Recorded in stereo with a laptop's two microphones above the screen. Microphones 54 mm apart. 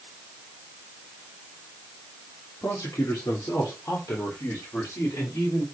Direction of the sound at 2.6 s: 70° left (ahead or behind).